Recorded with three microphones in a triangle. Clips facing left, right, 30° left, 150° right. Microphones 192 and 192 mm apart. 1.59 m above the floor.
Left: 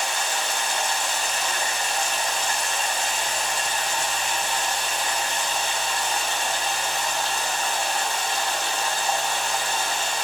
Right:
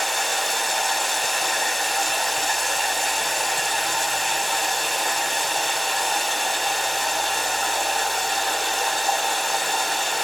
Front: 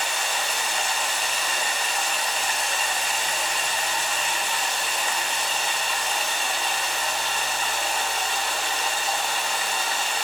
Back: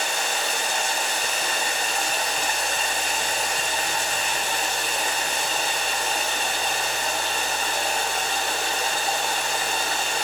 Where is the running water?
110° right, 2.5 m.